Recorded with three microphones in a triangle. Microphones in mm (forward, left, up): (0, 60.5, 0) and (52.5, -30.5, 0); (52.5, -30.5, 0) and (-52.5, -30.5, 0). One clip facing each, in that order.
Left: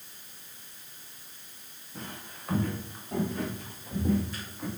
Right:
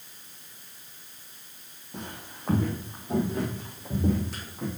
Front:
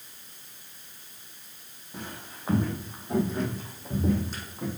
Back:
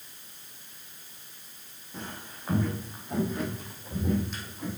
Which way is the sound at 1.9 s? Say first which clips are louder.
Right 2 dB, even; 75° right.